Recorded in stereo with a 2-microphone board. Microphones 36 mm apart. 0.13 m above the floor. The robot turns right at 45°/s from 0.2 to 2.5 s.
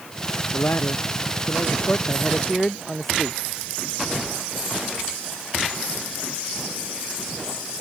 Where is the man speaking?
80° left; by 3.4 s 170° left.